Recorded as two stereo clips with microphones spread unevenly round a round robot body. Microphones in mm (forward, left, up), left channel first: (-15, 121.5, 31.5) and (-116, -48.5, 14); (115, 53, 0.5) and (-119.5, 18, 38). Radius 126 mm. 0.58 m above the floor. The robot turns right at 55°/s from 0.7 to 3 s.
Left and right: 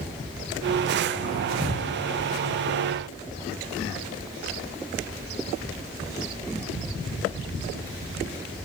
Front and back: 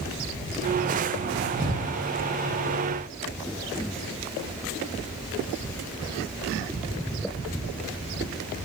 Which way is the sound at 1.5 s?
75° right.